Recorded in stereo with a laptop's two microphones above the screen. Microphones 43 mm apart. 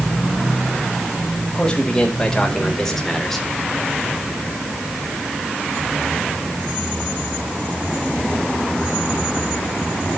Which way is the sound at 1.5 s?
15° left (ahead or behind).